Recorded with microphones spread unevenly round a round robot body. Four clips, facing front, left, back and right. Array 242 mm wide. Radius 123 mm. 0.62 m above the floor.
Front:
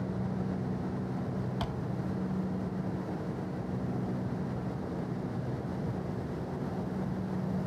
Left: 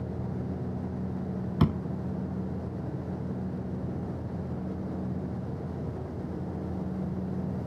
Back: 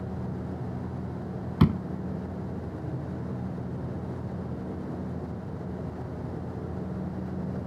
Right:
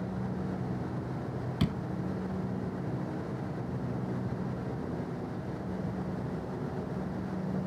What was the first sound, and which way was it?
A door slam, 160° left.